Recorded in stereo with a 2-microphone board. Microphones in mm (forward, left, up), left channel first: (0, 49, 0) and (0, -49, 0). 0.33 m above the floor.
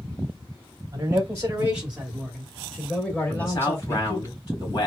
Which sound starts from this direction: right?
A man speaking, at 0.9 s.